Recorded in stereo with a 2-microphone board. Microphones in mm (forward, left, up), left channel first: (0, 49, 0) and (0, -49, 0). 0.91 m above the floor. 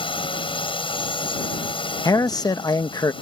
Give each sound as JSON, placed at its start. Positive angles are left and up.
{"t": 0.0, "sound": "a drone", "side_deg": 60}
{"t": 2.0, "sound": "a man speaking", "side_deg": 40}